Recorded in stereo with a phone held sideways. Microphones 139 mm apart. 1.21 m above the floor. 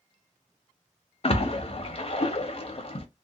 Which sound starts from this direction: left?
A splash, at 1.2 s.